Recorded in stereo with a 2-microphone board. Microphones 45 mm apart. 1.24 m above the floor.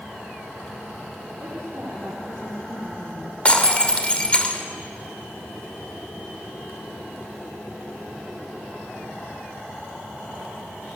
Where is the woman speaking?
70° right (ahead or behind), 4 m.